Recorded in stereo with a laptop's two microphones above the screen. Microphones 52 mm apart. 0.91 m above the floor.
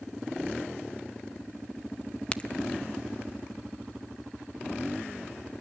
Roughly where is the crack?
Left.